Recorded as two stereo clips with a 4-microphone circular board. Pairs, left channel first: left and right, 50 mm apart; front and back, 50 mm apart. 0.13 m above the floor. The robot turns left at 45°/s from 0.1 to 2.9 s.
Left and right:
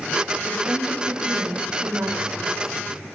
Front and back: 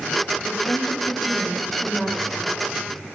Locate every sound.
0.5 s a woman speaking: 10° right, 8 m; by 3.1 s 120° right, 8 m